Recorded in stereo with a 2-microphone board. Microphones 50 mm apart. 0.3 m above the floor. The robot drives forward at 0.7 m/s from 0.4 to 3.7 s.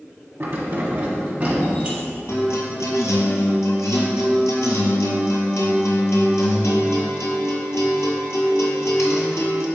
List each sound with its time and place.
0.4 s keys jangling: 50° right (ahead or behind), 1.3 m; by 2.0 s 30° right (ahead or behind), 2 m
2.3 s a guitar: 65° left (ahead or behind), 1.4 m; by 9.7 s 75° left (ahead or behind), 1.3 m